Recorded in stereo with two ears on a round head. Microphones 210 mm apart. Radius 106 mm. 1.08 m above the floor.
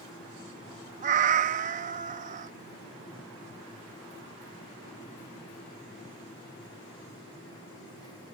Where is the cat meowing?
30° right (ahead or behind).